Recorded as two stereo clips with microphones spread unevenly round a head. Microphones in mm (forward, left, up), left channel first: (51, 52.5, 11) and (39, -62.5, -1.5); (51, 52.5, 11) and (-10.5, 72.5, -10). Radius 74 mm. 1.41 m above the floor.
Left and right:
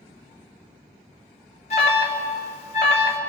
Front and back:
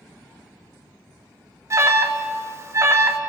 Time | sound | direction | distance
1.7 | an alarm | 135° left | 1.6 m